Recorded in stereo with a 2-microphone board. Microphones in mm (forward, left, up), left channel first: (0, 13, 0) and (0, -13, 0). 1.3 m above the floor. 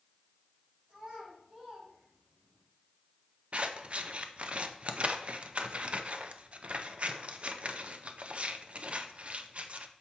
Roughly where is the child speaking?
Centre.